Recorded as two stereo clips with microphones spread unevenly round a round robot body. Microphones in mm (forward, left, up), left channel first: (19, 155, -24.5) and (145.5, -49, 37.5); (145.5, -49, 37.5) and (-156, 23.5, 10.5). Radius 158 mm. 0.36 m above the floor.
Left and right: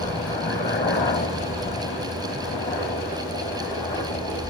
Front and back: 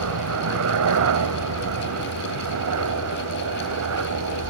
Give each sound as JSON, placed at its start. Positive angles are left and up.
{"t": 0.0, "sound": "a helicopter", "azimuth_deg": -175}